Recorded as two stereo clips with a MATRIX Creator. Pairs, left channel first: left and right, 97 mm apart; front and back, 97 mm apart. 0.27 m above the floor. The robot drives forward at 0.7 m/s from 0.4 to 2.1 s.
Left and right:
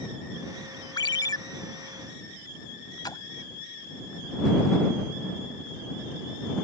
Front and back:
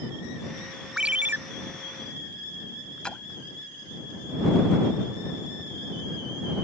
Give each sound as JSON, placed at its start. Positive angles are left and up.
{"t": 1.0, "sound": "a ringtone", "azimuth_deg": 100}
{"t": 3.0, "sound": "a splash", "azimuth_deg": 75}